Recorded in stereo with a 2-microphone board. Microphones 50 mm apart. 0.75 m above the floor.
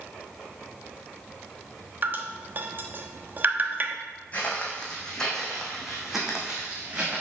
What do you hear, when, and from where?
2.0 s dripping: 40° right (ahead or behind), 1.0 m
4.3 s footsteps: 25° left (ahead or behind), 3 m; by 7.2 s 20° right (ahead or behind), 3.5 m